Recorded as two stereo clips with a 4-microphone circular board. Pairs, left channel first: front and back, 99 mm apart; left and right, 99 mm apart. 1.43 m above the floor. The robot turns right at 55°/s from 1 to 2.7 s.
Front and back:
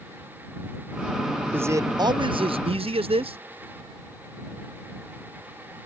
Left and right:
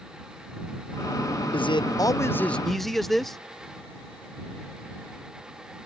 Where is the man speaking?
110° left; by 3.4 s 175° left.